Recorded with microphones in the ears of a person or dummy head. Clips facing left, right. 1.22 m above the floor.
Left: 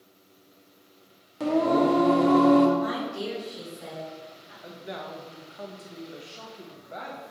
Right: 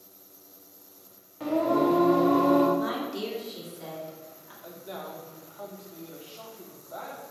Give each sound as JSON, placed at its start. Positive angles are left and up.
{"t": 1.4, "sound": "singing", "side_deg": 45, "distance_m": 0.7}
{"t": 2.8, "sound": "a woman speaking", "side_deg": -60, "distance_m": 1.3}
{"t": 4.6, "sound": "a man speaking", "side_deg": 25, "distance_m": 0.7}